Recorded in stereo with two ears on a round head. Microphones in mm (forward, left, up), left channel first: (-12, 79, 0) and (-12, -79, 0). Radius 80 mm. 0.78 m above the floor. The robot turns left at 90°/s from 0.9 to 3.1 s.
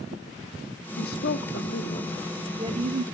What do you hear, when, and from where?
1.0 s a woman speaking: 125° left, 1.2 m; by 3.0 s 65° right, 1.2 m